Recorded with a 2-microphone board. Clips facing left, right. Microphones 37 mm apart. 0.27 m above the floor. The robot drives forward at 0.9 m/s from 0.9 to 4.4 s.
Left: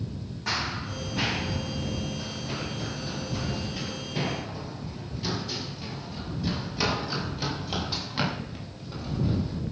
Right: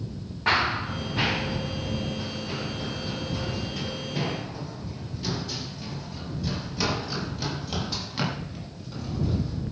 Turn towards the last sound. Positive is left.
turn(degrees=15)  # may be behind; listen again after turning